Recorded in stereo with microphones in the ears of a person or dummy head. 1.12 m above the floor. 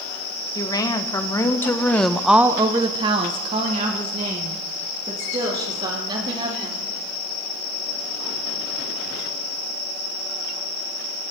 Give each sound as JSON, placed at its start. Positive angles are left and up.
{"t": 0.6, "sound": "a woman speaking", "side_deg": 25, "distance_m": 1.6}